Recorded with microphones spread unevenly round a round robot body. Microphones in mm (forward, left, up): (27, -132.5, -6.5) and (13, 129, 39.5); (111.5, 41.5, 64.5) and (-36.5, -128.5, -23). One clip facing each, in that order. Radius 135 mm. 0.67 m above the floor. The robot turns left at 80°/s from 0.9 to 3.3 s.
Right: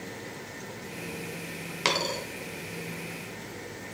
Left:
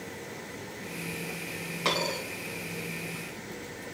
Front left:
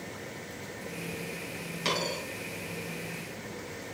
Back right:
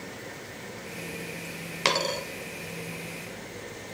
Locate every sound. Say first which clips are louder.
1.9 s a dropped coin: even, back right 4 dB; 135° right, 1.2 m; by 2.2 s 165° right, 1.2 m